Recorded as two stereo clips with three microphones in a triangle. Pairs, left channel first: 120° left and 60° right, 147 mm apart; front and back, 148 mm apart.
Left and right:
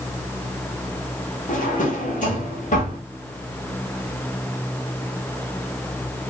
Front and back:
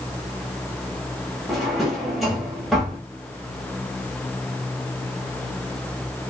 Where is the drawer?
90° left, 1.1 m.